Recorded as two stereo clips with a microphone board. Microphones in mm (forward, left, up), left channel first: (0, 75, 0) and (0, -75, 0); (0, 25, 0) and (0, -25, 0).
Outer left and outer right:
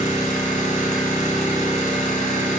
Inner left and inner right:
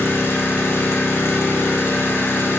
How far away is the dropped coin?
I don't hear a dropped coin.